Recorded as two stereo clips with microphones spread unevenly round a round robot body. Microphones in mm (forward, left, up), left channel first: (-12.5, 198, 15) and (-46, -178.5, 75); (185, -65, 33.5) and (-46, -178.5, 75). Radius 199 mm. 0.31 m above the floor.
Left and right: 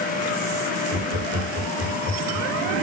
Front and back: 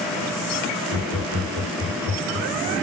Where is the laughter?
145° right, 6.5 m.